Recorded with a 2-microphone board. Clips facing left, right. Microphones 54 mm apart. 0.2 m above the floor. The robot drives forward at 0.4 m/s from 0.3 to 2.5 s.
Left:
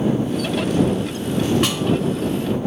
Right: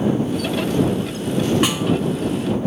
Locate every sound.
1.6 s a snare drum: 10° right (ahead or behind), 1.8 m